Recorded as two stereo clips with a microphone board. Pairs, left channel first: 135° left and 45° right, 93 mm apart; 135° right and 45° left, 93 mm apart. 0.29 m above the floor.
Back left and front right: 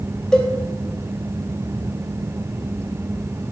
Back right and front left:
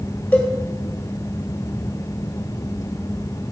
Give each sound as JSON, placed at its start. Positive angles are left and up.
{"t": 0.3, "sound": "a cowbell", "azimuth_deg": -160, "distance_m": 1.5}